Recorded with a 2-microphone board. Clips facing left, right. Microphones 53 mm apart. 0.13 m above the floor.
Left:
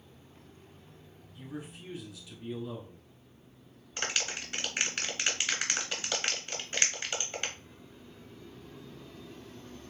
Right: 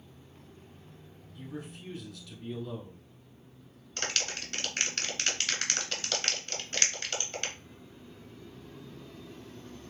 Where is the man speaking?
15° left (ahead or behind), 1.2 m.